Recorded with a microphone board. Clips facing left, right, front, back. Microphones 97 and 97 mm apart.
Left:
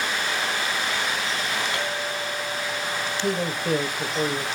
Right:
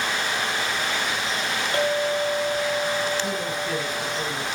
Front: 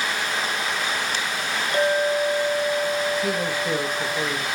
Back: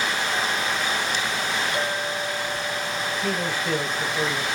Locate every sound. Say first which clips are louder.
1.7 s a clink: right 6 dB, front 6 dB; 40° right, 2 m
3.2 s a man speaking: left 2 dB, front 2 dB; 80° left, 1.6 m